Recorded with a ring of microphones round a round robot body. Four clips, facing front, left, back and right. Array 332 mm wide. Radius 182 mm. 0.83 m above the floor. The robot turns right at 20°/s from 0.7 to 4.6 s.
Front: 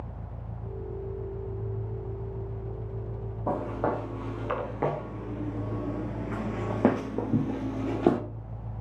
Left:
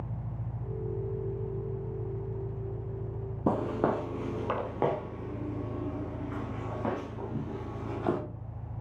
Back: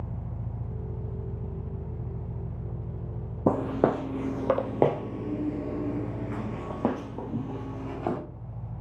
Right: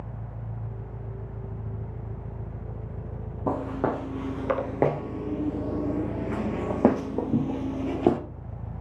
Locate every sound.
0.0 s an engine running: 170° right, 1.2 m; by 8.8 s 90° right, 1.2 m
3.5 s footsteps: 165° left, 1.6 m; by 8.2 s 50° right, 1.6 m